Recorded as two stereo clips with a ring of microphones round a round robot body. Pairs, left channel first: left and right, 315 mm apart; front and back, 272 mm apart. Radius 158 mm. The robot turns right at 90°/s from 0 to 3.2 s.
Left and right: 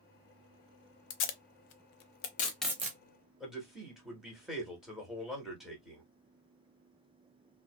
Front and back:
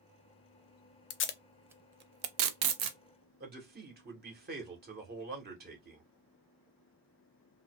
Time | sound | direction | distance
1.1 | tape being pulled | 40° left | 0.5 m
3.4 | a man speaking | straight behind | 1.1 m